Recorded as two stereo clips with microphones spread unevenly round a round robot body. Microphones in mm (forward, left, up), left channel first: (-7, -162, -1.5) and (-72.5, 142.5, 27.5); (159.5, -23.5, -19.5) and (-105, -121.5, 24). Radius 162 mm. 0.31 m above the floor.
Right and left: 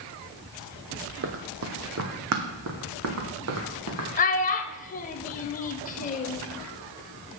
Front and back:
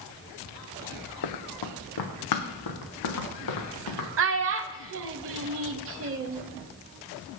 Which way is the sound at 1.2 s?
50° left.